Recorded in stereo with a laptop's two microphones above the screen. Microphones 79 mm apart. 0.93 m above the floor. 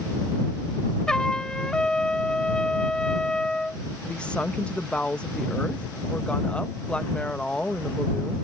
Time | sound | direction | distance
1.1 | a trumpet | 10° left (ahead or behind) | ?
4.0 | a woman speaking | 15° left (ahead or behind) | ?